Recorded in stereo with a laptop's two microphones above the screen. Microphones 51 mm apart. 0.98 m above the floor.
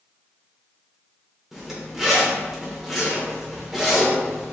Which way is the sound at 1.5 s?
10° right (ahead or behind).